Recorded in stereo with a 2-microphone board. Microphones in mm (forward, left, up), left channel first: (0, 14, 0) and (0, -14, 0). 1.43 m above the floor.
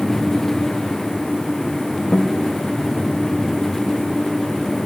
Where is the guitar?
35° left (ahead or behind), 1.2 m.